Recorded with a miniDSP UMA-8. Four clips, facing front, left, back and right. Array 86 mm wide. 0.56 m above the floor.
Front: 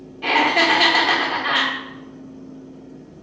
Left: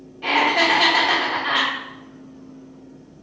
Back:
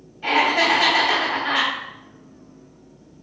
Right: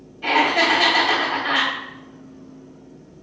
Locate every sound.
0.2 s laughter: 15° left, 1.0 m